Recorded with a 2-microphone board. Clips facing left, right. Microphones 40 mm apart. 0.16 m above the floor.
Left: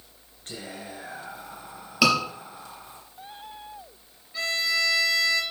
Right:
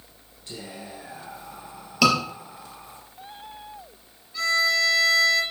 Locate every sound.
0.5 s whispering: 55° left (ahead or behind), 1.8 m
2.0 s a scream: 5° left (ahead or behind), 3.5 m
4.3 s a violin: 20° left (ahead or behind), 3 m